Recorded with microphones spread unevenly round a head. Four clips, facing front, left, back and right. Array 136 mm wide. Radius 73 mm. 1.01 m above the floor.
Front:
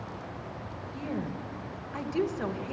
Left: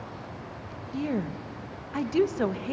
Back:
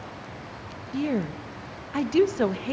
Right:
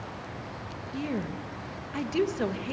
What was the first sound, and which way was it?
A woman speaking, 165° left.